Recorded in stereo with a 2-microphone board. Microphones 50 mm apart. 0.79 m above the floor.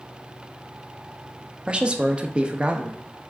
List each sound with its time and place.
1.7 s a man speaking: 25° right (ahead or behind), 0.5 m